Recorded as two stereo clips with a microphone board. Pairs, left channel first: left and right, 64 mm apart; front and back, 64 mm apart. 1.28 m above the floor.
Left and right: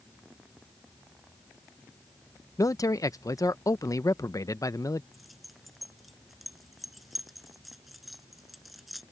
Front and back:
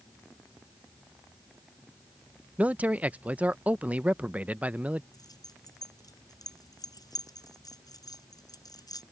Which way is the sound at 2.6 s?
115° left.